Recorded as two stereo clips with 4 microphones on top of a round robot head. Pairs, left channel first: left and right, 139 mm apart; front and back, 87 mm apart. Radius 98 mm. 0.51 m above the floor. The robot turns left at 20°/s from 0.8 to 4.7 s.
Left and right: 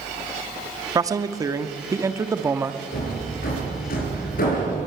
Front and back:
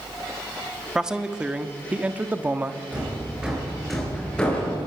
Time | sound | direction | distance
0.9 | a man speaking | 100° right | 1.0 m
2.9 | hammering | 110° left | 7 m